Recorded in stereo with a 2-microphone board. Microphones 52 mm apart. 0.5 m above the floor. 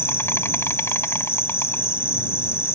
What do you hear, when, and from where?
0.0 s an insect: 55° left (ahead or behind)